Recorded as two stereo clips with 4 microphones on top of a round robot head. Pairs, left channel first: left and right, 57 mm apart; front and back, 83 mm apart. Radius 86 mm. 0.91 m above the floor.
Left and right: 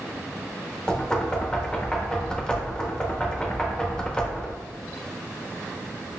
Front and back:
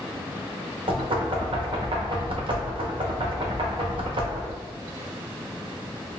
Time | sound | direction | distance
0.9 | knocking | 165° left | 0.9 m